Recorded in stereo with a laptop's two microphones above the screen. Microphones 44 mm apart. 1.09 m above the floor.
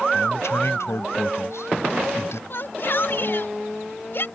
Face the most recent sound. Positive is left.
turn(degrees=55)  # may be behind; listen again after turning